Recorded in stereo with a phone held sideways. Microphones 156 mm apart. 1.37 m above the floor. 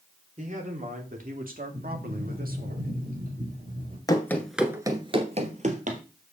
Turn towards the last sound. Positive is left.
turn(degrees=-60)  # may be behind; listen again after turning